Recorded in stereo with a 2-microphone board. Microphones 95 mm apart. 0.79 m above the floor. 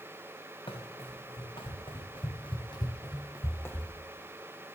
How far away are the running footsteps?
About 3 m.